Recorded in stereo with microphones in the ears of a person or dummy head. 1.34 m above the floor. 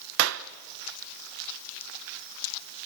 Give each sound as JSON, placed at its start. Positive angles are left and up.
{"t": 0.2, "sound": "a clap", "side_deg": -80, "distance_m": 0.9}